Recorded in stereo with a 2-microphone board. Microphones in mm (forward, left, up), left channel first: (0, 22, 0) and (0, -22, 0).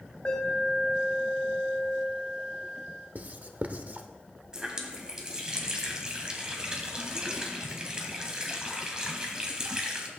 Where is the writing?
40° right (ahead or behind), 0.8 m.